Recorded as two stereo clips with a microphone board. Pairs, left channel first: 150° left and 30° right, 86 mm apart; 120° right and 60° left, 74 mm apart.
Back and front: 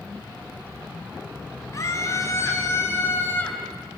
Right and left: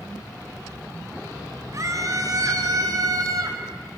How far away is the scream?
About 3.5 m.